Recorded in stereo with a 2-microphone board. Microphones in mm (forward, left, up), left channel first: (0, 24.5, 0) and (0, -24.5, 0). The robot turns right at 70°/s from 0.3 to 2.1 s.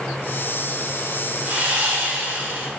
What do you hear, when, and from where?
1.4 s sawing: 120° right, 1.9 m; by 2.7 s 75° right, 1.9 m